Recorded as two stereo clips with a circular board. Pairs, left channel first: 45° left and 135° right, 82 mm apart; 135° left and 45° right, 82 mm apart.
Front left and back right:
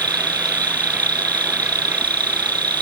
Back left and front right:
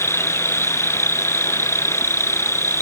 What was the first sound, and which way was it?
An insect, 165° right.